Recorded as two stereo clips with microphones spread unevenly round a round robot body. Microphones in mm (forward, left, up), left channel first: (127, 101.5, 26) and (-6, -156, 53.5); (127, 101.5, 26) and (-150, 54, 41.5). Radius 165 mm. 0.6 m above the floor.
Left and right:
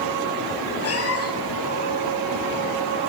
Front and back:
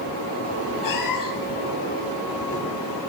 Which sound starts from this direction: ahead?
A cat meowing, at 0.8 s.